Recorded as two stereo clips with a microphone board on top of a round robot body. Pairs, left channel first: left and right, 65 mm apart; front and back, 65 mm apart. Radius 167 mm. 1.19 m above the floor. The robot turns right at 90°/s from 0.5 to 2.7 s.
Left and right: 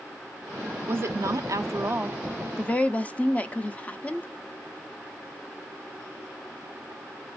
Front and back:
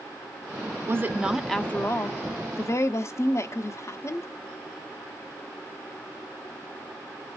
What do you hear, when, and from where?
0.9 s a woman speaking: 140° right, 0.6 m; by 4.3 s 25° left, 0.6 m